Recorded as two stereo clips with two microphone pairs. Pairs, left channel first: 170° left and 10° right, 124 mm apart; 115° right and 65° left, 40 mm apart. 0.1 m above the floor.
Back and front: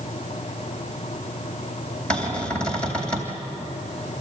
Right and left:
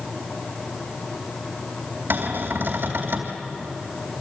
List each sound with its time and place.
2.1 s a cupboard door: 90° left, 3 m